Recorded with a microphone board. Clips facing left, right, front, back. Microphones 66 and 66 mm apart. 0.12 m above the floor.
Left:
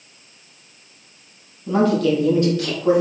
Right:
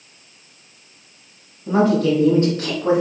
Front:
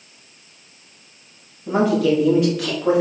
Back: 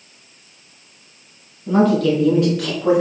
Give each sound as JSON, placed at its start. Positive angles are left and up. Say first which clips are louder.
{"t": 1.7, "sound": "a woman speaking", "louder": "right 1 dB, back 2 dB", "azimuth_deg": -50, "distance_m": 1.5}